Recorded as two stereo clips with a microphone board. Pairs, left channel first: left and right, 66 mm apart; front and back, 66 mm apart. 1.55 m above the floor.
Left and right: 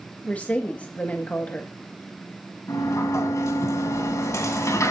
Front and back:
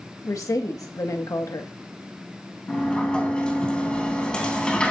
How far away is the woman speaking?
About 1.6 m.